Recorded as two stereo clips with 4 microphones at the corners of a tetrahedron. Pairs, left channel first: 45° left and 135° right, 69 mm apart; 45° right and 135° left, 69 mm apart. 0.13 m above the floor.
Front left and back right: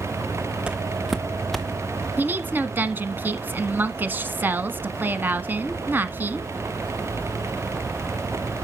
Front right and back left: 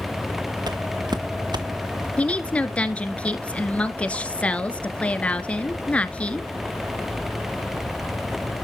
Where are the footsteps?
150° left, 0.6 m; by 2.1 s 125° left, 1.5 m.